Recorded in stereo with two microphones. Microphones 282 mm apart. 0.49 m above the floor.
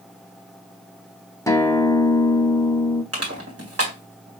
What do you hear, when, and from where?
1.5 s a guitar: 10° left (ahead or behind), 0.8 m
3.1 s crushing: 55° right (ahead or behind), 1.9 m